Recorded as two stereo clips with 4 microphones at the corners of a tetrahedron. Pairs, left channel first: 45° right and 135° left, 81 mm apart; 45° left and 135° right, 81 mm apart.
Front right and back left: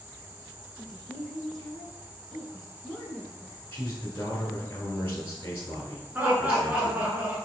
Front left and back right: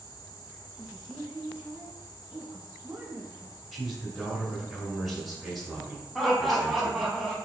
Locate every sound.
0.8 s a woman speaking: 125° right, 1.4 m
3.7 s a man speaking: 55° right, 1.1 m
6.2 s laughter: 140° left, 1.2 m